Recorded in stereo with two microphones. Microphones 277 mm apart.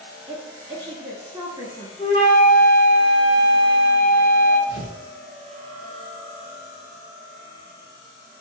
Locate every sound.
0.3 s a woman speaking: 15° right (ahead or behind), 1.2 m
2.0 s a flute: 30° left (ahead or behind), 1.7 m
4.7 s tearing paper: 40° left (ahead or behind), 1.1 m